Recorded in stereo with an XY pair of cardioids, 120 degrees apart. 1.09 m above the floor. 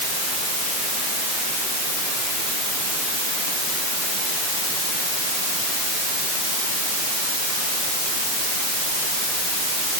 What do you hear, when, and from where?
Only background noise.